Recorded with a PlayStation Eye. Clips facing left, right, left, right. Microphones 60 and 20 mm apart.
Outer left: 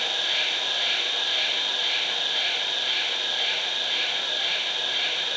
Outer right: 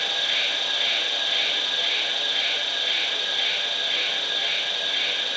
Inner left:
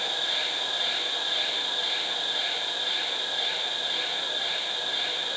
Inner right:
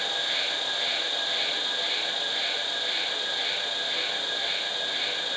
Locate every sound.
0.0 s an insect: 45° right (ahead or behind), 4.5 m